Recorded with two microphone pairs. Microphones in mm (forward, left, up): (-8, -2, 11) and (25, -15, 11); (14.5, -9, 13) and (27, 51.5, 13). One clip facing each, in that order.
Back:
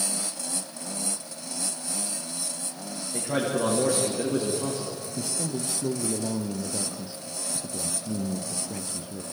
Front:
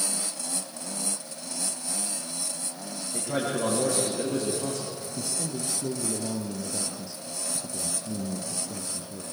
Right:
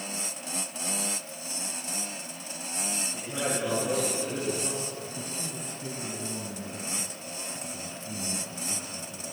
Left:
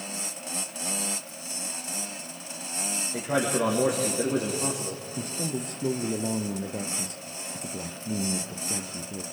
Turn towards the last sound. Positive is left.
turn(degrees=90)